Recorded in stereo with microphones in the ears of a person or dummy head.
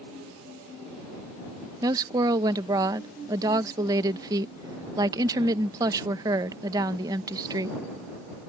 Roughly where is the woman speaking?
Centre.